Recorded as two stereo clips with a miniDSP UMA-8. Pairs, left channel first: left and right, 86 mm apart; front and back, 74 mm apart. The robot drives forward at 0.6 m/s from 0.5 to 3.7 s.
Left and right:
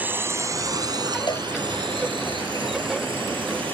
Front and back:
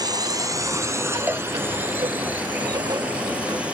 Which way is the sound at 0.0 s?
160° right.